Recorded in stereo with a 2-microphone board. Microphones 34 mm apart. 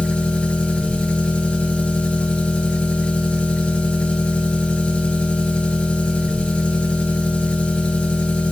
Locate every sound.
0.0 s an engine running: 30° left (ahead or behind), 3 m